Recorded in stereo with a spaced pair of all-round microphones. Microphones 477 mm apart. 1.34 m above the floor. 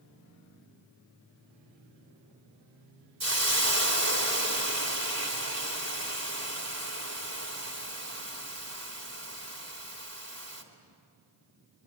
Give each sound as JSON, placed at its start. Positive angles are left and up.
{"t": 3.2, "sound": "a hiss", "side_deg": -30, "distance_m": 2.5}